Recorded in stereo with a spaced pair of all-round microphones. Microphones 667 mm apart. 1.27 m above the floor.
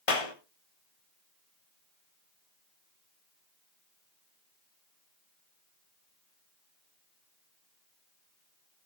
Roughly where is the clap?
Left.